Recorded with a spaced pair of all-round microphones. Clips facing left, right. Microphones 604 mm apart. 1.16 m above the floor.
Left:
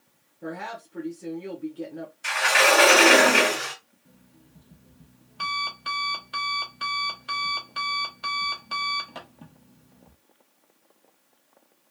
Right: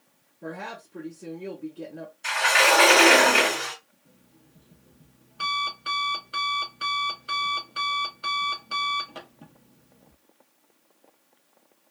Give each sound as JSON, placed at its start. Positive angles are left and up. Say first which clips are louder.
{"t": 0.4, "sound": "a woman speaking", "louder": "left 2 dB", "side_deg": 0, "distance_m": 0.8}
{"t": 2.2, "sound": "a sliding door", "louder": "left 1 dB", "side_deg": 35, "distance_m": 1.0}
{"t": 4.0, "sound": "an alarm clock", "louder": "left 4 dB", "side_deg": 25, "distance_m": 0.7}